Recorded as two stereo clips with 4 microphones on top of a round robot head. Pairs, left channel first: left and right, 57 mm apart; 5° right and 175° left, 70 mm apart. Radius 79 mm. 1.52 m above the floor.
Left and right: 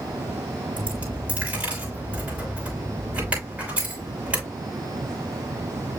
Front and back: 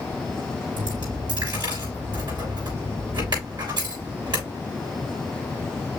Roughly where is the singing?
No singing in this recording.